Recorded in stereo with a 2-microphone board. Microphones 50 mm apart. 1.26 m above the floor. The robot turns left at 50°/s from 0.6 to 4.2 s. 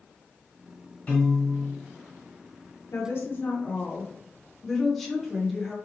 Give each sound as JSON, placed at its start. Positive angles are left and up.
{"t": 1.1, "sound": "a piano", "azimuth_deg": 35, "distance_m": 1.6}
{"t": 2.9, "sound": "a woman speaking", "azimuth_deg": 65, "distance_m": 0.7}